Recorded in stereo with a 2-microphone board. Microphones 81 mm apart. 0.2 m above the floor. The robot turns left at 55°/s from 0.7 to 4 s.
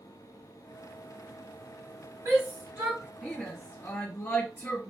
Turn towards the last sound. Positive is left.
turn(degrees=30)  # may be behind; listen again after turning